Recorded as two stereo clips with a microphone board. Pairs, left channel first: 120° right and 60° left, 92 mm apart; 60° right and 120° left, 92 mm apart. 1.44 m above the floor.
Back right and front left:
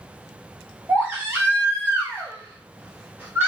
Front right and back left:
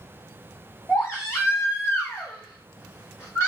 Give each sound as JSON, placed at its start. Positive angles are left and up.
{"t": 0.9, "sound": "a baby crying", "azimuth_deg": -5, "distance_m": 1.4}